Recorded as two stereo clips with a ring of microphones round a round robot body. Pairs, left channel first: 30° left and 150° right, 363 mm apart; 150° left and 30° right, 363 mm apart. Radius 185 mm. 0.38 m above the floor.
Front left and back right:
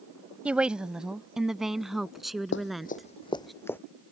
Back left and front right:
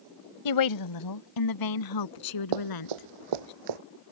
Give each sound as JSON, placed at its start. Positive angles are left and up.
{"t": 0.5, "sound": "a woman speaking", "azimuth_deg": 125}
{"t": 2.5, "sound": "running footsteps", "azimuth_deg": -30}